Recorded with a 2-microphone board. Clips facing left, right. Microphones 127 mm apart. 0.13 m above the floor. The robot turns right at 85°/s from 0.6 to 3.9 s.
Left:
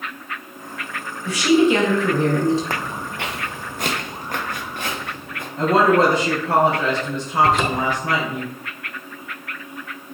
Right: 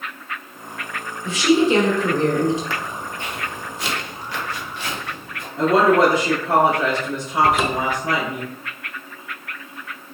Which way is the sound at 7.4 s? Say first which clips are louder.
Even; 5° right (ahead or behind).